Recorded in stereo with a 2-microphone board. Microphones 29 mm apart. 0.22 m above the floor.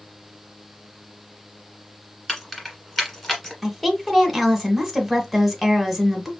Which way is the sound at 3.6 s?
5° left (ahead or behind).